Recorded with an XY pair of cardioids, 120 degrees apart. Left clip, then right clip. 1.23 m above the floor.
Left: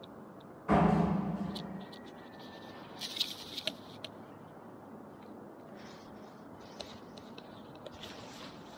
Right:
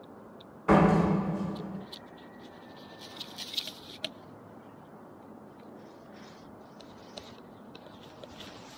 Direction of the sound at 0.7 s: 55° right.